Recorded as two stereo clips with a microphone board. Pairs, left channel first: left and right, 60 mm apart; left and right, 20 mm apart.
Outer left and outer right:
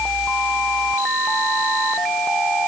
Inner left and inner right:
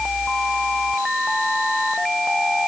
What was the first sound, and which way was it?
Only background noise.